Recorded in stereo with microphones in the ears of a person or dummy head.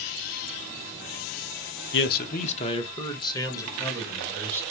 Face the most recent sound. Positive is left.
turn(degrees=15)  # may be behind; listen again after turning